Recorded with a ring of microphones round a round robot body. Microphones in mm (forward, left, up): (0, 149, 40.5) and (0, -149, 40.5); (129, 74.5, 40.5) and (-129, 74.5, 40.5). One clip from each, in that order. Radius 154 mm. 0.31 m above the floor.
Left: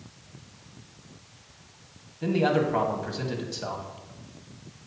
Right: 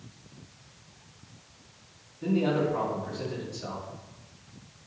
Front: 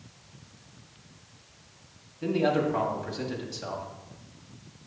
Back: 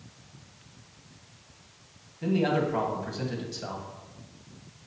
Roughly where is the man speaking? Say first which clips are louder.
Left 3 dB, front 1 dB; left.